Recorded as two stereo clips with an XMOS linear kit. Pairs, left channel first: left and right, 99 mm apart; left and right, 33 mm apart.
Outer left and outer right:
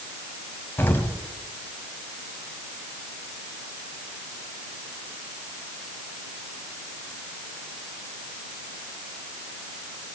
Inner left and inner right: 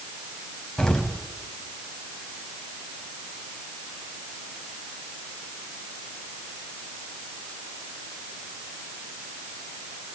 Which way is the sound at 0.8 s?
20° left (ahead or behind).